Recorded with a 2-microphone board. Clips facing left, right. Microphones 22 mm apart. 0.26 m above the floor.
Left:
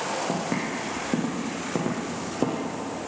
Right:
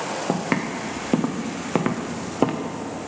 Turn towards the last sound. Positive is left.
turn(degrees=-40)  # may be behind; listen again after turning